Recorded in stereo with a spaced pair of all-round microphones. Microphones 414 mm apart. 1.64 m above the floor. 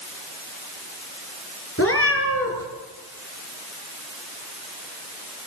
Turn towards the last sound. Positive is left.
turn(degrees=30)  # may be behind; listen again after turning